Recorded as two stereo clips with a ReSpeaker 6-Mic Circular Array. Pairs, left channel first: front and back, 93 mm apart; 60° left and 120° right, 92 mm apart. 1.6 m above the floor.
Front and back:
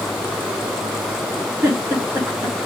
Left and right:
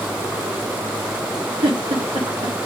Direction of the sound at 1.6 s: 120° right.